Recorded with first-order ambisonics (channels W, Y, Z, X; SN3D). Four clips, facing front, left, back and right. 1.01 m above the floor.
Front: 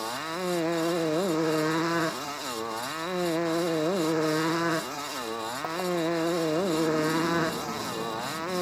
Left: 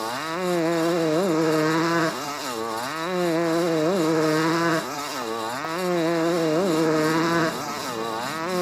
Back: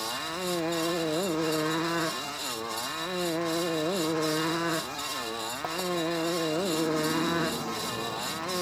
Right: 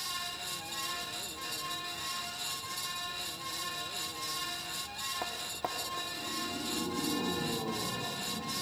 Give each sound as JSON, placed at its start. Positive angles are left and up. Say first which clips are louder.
{"t": 0.0, "sound": "a motorcycle", "louder": "left 12 dB, front 1 dB", "azimuth_deg": 80}